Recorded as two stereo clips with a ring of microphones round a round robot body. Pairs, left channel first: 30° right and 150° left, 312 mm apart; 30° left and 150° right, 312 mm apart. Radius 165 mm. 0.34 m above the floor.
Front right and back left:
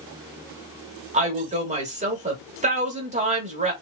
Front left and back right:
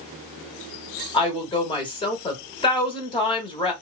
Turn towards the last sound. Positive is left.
turn(degrees=95)